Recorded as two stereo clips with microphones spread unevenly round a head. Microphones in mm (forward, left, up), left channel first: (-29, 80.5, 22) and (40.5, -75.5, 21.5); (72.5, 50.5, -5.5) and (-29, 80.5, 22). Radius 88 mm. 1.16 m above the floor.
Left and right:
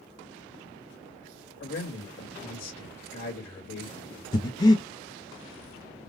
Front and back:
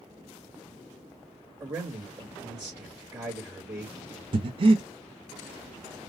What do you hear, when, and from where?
1.6 s a man speaking: 95° left, 2 m
4.3 s breathing: straight behind, 0.6 m